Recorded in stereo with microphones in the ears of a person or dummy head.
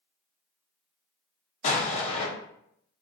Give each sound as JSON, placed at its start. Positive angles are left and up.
{"t": 1.6, "sound": "an explosion", "side_deg": 40, "distance_m": 0.7}